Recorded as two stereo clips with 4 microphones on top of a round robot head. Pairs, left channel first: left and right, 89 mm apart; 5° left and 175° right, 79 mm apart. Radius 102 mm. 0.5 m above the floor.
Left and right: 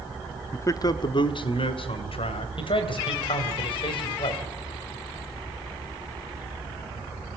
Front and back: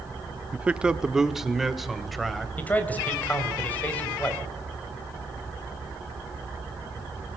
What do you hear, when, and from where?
0.5 s a man speaking: 130° left, 1.0 m; by 2.5 s 95° left, 3 m
2.6 s a man speaking: 75° left, 4 m